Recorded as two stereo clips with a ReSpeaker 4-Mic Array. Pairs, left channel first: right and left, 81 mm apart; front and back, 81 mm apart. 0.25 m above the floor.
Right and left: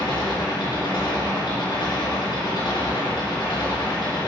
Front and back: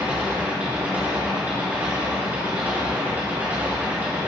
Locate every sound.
0.0 s an engine running: 110° right, 3.5 m